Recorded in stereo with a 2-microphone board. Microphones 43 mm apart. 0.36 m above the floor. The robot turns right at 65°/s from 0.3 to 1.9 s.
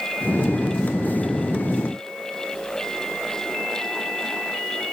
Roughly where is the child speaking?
I don't hear a child speaking.